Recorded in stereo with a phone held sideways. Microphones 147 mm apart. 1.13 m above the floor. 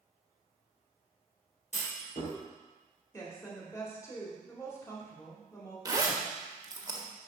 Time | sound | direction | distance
1.7 | a clunk | 55° left (ahead or behind) | 4 m
3.1 | a woman speaking | 20° left (ahead or behind) | 2.5 m
5.8 | a zipper | 25° right (ahead or behind) | 1.1 m